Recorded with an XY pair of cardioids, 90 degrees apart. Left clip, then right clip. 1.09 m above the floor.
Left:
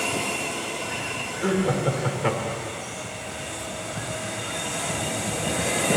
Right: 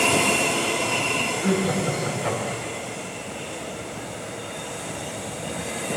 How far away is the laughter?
About 4 m.